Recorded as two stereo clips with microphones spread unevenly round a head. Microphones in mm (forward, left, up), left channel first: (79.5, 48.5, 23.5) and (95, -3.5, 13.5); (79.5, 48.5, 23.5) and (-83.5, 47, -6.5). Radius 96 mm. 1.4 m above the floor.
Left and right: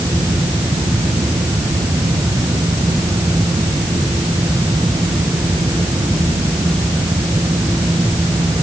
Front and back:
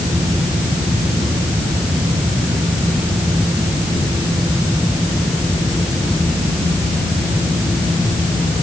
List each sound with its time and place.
Only background noise.